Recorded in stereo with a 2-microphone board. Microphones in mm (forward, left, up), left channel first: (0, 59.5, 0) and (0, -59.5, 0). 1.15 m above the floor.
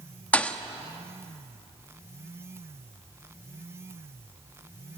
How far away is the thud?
About 0.9 m.